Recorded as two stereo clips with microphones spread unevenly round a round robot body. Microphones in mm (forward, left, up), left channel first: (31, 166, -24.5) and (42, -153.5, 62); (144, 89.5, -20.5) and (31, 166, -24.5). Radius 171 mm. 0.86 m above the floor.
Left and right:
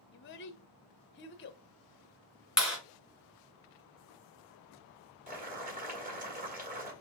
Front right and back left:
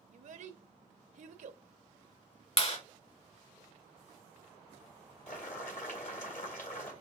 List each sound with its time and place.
0.1 s a child speaking: 135° left, 0.7 m
2.6 s a clap: straight ahead, 2.5 m
5.3 s boiling: 20° right, 1.9 m